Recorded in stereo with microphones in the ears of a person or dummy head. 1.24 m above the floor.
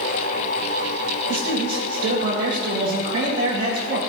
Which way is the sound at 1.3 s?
45° right (ahead or behind).